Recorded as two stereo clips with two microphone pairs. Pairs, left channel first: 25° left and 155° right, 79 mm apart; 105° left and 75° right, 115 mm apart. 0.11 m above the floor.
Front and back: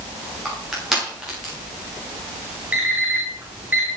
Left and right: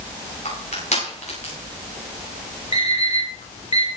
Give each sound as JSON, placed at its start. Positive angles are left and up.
{"t": 0.5, "sound": "crushing", "azimuth_deg": 120, "distance_m": 10.0}
{"t": 2.7, "sound": "an alarm clock", "azimuth_deg": 130, "distance_m": 6.5}